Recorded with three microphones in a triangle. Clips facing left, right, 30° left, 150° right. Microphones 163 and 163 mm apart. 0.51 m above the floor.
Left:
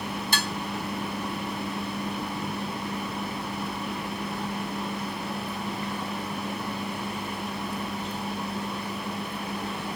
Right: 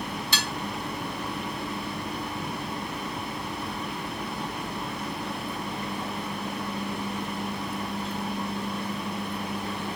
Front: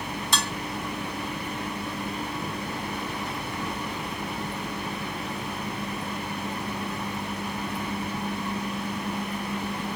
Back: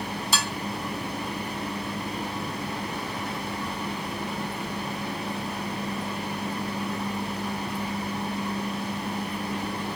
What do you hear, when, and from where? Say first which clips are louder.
0.3 s dishes clattering: left 2 dB, front 1 dB; 125° left, 0.8 m